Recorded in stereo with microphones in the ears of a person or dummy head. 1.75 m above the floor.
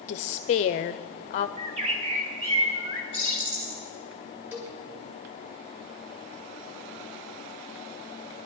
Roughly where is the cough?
No cough in this recording.